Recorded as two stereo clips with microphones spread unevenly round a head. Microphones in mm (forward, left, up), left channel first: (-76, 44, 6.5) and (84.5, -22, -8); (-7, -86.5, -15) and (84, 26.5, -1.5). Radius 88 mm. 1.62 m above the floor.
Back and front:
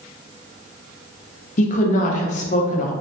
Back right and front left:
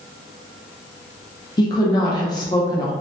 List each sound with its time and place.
1.6 s a woman speaking: 170° left, 0.5 m